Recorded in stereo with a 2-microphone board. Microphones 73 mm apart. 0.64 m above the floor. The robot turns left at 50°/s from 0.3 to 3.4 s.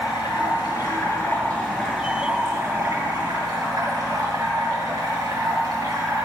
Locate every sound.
0.0 s running water: 80° left, 4.5 m; by 6.2 s 75° right, 4.5 m